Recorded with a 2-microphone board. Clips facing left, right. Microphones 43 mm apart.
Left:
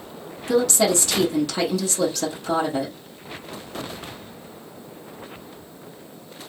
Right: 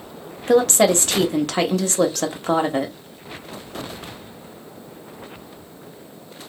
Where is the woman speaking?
50° right (ahead or behind), 0.9 m.